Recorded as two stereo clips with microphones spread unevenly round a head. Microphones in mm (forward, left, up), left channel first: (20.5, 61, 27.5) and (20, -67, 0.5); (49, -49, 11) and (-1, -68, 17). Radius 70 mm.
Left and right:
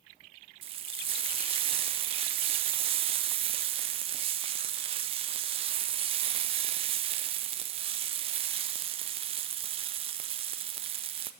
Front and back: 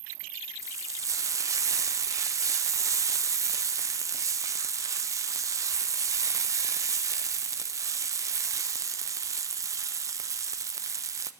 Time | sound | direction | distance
0.6 | frying | 140° right | 0.8 m